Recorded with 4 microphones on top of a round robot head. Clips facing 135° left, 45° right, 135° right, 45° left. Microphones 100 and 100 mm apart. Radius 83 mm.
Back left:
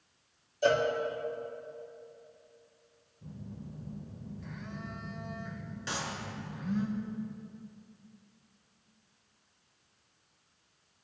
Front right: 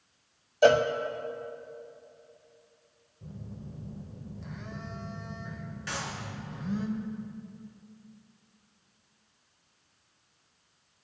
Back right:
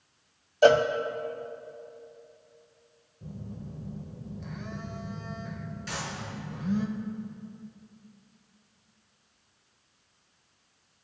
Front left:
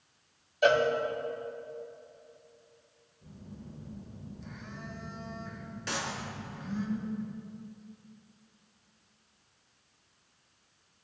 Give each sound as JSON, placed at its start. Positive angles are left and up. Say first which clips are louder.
{"t": 0.6, "sound": "a cowbell", "louder": "front right 6 dB, back right 5 dB", "azimuth_deg": -80, "distance_m": 0.6}
{"t": 3.2, "sound": "a phone buzzing", "louder": "front right 1 dB, back right 6 dB", "azimuth_deg": -105, "distance_m": 1.4}
{"t": 5.9, "sound": "a clap", "louder": "even, front left 2 dB", "azimuth_deg": 70, "distance_m": 3.5}